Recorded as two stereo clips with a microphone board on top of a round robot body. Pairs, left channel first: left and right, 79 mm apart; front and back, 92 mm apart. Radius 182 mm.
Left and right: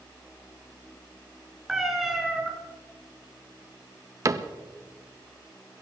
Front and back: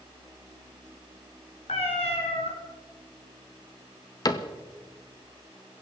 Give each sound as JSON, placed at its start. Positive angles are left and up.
{"t": 1.7, "sound": "a cat meowing", "azimuth_deg": -5, "distance_m": 1.8}
{"t": 4.2, "sound": "a cupboard door", "azimuth_deg": -45, "distance_m": 1.1}